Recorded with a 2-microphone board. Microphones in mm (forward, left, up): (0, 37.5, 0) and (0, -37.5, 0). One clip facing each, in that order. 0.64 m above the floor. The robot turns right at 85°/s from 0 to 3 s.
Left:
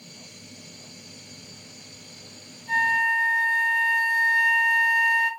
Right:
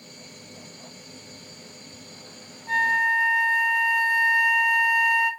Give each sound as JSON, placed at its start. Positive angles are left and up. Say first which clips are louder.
{"t": 2.7, "sound": "a flute", "louder": "even", "side_deg": -50, "distance_m": 1.5}